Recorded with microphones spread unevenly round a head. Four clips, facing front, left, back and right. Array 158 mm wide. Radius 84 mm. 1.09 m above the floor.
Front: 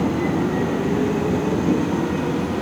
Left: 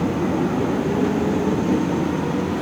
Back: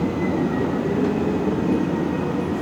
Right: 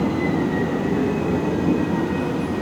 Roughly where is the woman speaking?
I don't hear a woman speaking.